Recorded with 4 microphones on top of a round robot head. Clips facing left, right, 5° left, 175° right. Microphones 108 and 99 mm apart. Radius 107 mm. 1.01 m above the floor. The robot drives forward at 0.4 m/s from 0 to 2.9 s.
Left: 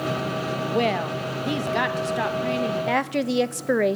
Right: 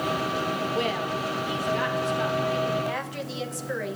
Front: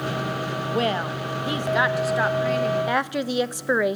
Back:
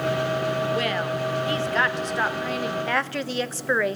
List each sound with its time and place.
0.7 s a woman speaking: 65° left, 1.4 m; by 2.8 s 100° left, 1.3 m
2.9 s a woman speaking: 75° left, 1.0 m; by 4.0 s 80° left, 1.0 m